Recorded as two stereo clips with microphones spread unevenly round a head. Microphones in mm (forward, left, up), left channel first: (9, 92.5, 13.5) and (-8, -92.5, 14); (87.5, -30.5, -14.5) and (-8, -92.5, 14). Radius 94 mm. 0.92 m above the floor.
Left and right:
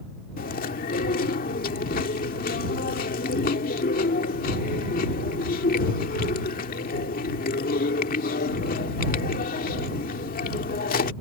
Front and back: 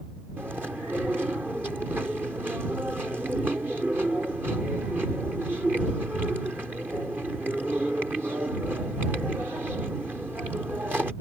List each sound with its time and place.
0.4 s chewing: 130° left